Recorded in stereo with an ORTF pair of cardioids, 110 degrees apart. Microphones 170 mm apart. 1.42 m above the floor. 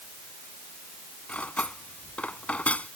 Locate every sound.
1.3 s cutlery clinking: 5° left